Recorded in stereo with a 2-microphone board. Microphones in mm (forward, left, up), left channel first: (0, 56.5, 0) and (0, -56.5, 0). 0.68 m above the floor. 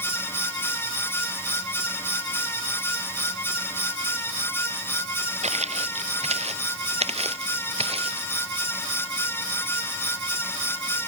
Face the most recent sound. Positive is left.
turn(degrees=-60)  # may be behind; listen again after turning